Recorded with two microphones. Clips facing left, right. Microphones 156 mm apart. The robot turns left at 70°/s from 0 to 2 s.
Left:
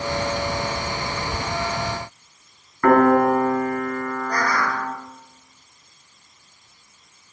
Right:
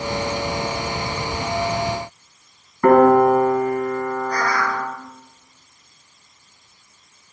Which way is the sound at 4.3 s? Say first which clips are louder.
Right 1 dB; 45° left (ahead or behind).